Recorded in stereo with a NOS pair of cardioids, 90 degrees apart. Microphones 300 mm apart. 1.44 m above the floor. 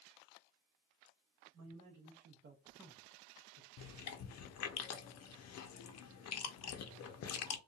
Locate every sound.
1.5 s a man speaking: 65° right, 1.4 m; by 3.7 s 65° left, 0.8 m
3.8 s chewing: 60° left, 0.6 m